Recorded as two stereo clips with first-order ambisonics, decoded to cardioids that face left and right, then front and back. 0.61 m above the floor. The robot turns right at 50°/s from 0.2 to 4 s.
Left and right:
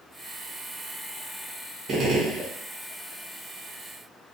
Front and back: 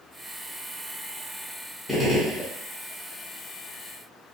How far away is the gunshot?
About 0.7 m.